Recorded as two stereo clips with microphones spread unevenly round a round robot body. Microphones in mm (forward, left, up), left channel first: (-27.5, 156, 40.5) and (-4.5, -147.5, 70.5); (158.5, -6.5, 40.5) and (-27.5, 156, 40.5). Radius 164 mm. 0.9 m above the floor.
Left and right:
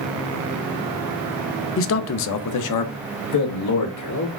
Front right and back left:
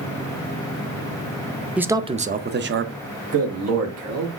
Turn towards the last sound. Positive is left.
turn(degrees=125)